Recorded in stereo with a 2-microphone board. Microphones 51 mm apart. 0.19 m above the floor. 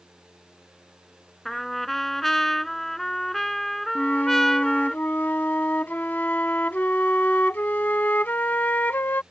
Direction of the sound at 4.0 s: 35° left (ahead or behind).